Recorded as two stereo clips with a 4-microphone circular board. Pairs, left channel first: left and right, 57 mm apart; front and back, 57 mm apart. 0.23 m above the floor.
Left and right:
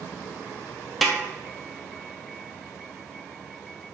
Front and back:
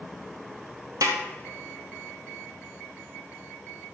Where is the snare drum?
Straight behind, 1.3 m.